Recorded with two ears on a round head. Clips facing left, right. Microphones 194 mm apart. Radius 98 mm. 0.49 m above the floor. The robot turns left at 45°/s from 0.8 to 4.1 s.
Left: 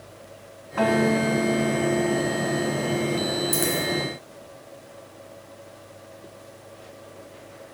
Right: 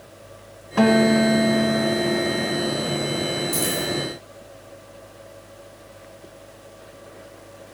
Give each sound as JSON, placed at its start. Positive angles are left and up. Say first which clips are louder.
{"t": 0.8, "sound": "a guitar", "louder": "right 5 dB", "azimuth_deg": -50, "distance_m": 0.9}
{"t": 3.5, "sound": "a dropped coin", "louder": "even", "side_deg": 10, "distance_m": 2.5}